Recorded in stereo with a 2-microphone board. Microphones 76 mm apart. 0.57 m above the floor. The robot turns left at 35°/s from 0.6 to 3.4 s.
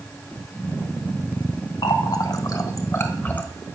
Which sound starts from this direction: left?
A running tap, at 1.8 s.